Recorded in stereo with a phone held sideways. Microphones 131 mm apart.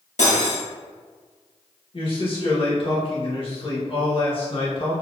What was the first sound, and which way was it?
Cutlery clinking, 65° left (ahead or behind).